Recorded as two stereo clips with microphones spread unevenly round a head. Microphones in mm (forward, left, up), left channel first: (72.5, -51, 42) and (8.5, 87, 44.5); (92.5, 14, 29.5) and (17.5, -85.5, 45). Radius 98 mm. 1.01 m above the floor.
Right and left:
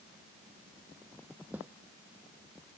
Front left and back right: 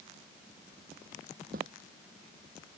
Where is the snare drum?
160° right.